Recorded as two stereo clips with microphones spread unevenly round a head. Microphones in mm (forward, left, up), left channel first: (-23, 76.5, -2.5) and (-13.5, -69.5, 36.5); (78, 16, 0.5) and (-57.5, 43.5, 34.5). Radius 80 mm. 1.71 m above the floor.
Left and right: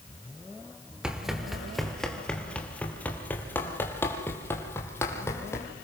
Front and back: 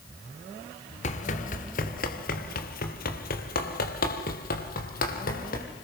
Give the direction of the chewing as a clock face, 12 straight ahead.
No chewing in this recording.